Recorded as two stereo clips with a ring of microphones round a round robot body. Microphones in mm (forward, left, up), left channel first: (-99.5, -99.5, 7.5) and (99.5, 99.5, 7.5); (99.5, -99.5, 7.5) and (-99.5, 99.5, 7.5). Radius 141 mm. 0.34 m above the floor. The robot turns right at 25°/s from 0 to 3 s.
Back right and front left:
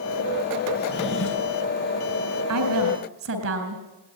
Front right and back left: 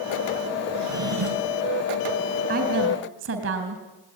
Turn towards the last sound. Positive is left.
turn(degrees=85)